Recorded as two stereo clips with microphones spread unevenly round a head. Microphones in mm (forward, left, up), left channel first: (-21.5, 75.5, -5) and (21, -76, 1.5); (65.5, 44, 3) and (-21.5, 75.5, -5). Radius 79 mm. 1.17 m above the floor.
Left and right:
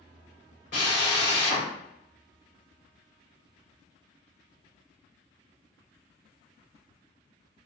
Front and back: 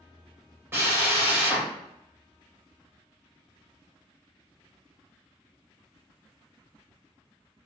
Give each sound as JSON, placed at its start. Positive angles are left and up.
{"t": 0.7, "sound": "a drill", "azimuth_deg": 95, "distance_m": 2.0}